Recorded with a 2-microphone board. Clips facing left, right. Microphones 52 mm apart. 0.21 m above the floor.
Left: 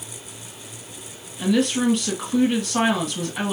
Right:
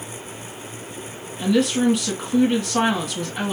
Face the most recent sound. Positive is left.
turn(degrees=0)  # may be behind; listen again after turning